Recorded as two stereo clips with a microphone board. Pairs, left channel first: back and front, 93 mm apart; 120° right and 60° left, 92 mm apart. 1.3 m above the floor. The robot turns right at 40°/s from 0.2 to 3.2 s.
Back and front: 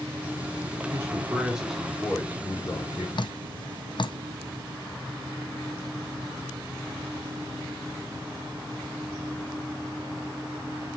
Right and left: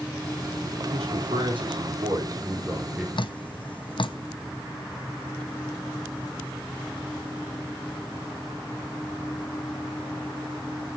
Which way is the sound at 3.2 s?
150° right.